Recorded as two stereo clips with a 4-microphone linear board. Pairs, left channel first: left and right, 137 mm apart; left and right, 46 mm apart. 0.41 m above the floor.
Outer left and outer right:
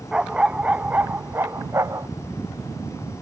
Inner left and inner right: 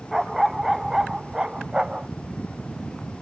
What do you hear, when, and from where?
0.1 s a dog barking: 5° right (ahead or behind); by 2.1 s 20° right (ahead or behind)